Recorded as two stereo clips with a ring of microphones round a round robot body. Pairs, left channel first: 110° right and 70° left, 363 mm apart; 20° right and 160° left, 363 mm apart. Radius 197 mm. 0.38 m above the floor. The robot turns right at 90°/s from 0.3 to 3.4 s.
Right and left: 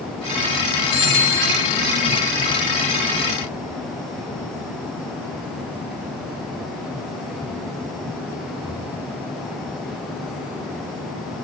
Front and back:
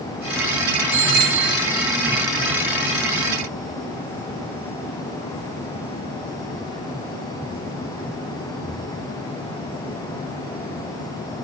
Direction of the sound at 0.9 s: 165° right.